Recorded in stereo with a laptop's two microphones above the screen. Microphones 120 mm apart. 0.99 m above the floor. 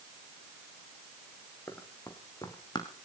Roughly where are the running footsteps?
Left.